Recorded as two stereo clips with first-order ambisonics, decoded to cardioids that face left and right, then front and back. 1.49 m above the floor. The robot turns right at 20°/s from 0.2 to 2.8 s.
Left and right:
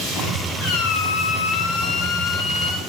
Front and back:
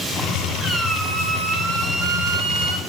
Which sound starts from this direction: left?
A squeak, at 0.6 s.